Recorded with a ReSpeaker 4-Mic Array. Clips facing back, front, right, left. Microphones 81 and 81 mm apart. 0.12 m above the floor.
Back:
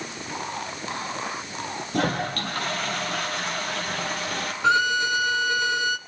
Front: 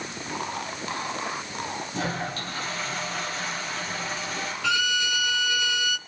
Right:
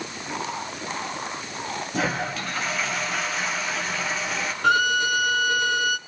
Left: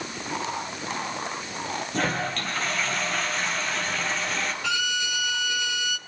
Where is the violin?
130° right, 0.7 m.